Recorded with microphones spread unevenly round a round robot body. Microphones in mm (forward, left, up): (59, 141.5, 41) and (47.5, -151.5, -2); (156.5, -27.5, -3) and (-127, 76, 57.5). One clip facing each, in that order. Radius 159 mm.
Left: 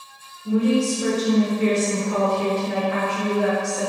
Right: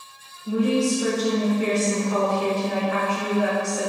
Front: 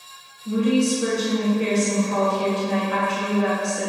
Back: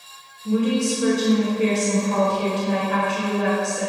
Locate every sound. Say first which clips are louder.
0.5 s a woman speaking: left 2 dB, front 1 dB; 155° left, 1.1 m